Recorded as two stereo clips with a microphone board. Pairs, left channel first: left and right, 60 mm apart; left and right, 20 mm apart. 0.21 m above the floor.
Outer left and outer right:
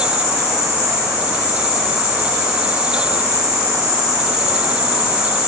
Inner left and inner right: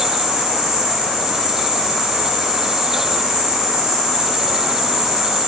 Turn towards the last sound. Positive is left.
turn(degrees=-30)  # may be behind; listen again after turning